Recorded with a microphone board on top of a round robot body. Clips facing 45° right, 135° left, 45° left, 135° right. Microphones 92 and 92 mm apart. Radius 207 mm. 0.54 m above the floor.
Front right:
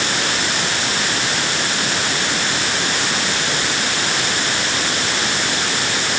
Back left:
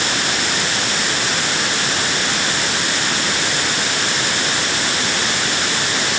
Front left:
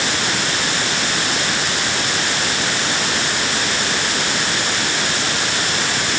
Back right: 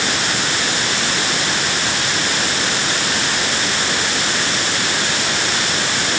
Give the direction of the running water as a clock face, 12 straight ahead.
I don't hear running water.